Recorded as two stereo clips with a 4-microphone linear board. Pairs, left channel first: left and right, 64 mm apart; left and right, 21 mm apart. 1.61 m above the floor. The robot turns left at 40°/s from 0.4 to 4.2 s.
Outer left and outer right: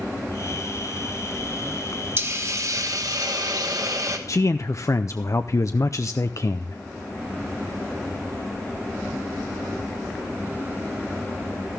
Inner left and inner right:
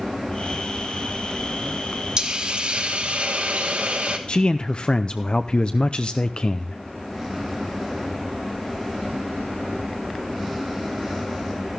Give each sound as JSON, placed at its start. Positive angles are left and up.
{"t": 2.2, "sound": "a hiss", "azimuth_deg": -40, "distance_m": 1.5}
{"t": 4.3, "sound": "a man speaking", "side_deg": 55, "distance_m": 0.5}